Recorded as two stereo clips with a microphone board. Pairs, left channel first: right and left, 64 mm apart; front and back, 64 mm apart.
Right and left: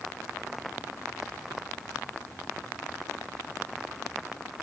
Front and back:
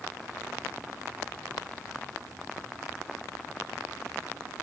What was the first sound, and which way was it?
Only background noise.